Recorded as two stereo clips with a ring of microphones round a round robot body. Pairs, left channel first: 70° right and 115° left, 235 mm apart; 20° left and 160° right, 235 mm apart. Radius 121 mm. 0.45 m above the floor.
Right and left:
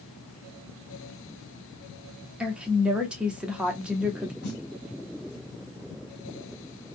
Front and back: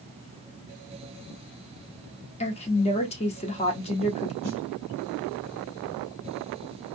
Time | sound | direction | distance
2.4 | a woman speaking | 30° left | 0.9 m
4.4 | a snare drum | 65° right | 1.9 m